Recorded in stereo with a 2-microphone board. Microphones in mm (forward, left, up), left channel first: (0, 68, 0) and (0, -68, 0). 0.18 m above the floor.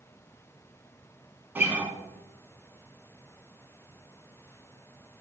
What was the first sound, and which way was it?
A guitar, 15° right (ahead or behind).